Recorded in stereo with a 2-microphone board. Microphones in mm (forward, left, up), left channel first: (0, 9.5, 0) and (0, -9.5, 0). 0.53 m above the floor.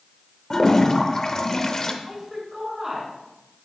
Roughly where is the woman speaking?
Right.